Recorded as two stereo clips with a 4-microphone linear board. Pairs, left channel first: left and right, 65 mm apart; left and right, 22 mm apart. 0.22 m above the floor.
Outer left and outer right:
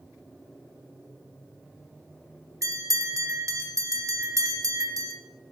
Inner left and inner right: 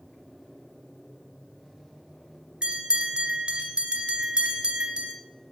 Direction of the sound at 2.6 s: 55° right (ahead or behind).